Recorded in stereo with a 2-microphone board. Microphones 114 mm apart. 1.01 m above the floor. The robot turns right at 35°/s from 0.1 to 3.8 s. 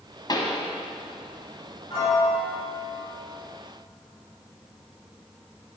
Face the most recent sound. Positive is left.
turn(degrees=-155)